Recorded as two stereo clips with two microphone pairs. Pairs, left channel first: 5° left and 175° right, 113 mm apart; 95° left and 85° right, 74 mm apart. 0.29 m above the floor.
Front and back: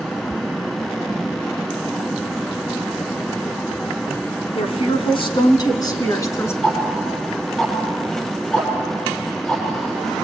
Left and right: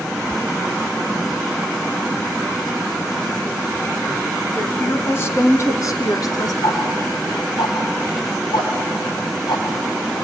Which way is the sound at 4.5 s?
25° left.